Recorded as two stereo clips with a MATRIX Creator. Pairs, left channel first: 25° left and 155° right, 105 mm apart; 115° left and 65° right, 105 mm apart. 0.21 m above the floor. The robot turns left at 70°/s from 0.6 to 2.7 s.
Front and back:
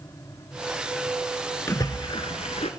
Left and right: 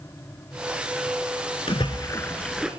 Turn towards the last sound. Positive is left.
turn(degrees=15)